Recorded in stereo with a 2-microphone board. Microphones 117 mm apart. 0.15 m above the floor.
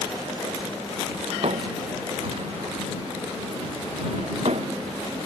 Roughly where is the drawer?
Right.